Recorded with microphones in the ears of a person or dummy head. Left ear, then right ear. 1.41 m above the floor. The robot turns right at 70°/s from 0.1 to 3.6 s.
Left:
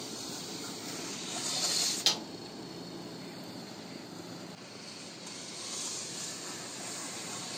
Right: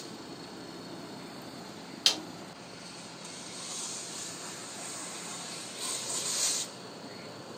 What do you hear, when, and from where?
2.1 s a snare drum: 5° right (ahead or behind), 1.8 m; by 2.3 s 5° left (ahead or behind), 1.8 m